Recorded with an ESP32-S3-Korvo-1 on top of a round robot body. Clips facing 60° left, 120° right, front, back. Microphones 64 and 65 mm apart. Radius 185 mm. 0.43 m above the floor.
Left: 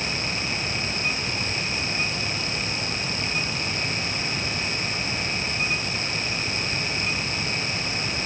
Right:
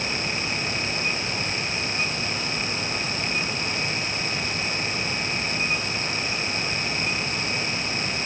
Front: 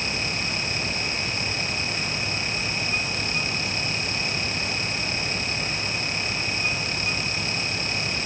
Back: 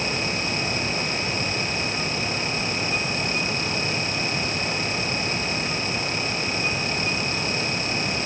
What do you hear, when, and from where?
Only background noise.